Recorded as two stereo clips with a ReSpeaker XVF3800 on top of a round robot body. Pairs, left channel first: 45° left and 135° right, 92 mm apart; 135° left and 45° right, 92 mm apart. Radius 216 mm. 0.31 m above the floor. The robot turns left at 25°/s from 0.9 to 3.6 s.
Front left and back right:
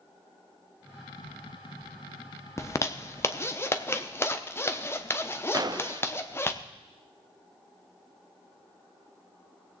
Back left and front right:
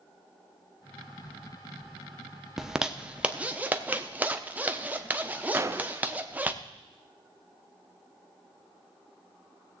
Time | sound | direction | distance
2.6 | a zipper | 35° left | 1.2 m
5.5 | a gunshot | 100° right | 0.9 m